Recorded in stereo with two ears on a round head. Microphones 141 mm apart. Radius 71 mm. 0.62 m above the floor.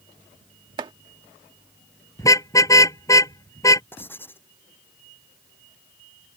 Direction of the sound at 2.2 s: 20° left (ahead or behind).